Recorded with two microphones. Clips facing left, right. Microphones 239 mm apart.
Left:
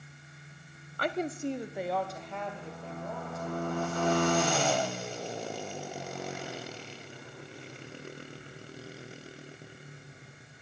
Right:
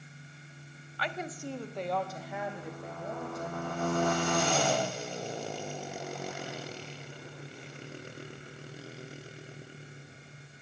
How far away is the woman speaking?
About 0.5 m.